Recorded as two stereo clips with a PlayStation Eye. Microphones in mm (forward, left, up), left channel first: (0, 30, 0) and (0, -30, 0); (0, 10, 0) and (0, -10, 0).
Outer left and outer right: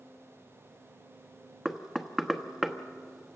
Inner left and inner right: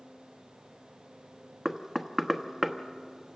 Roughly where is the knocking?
Centre.